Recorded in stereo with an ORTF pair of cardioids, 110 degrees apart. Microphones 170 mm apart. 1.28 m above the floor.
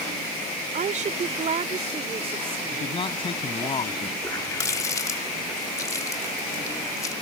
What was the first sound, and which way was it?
A woman speaking, 50° right.